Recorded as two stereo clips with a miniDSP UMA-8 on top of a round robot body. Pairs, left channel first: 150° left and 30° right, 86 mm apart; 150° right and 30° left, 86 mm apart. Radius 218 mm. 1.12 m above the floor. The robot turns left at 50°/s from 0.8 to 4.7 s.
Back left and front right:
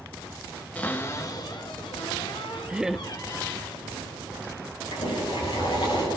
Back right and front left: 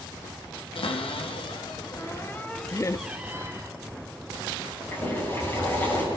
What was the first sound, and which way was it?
A cupboard door, 135° right.